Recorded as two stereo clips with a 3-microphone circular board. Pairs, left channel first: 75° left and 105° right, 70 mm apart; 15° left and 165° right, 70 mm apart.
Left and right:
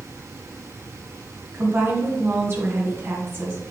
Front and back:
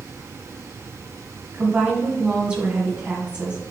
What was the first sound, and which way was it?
A woman speaking, 100° right.